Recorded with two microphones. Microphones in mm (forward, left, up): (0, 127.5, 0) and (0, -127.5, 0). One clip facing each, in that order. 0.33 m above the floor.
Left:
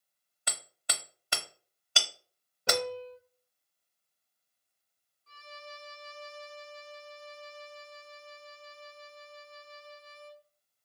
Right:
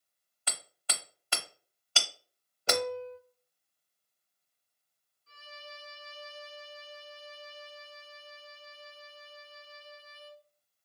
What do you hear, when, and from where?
0.5 s hammering: 15° left (ahead or behind), 0.6 m
2.7 s a piano: 75° left (ahead or behind), 1.2 m
5.3 s a violin: 10° right (ahead or behind), 1.4 m